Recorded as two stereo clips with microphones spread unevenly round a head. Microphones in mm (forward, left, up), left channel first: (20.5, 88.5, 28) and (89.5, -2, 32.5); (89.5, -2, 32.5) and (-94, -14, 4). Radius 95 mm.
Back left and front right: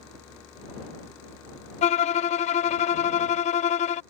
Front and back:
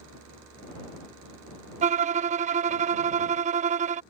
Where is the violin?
140° left.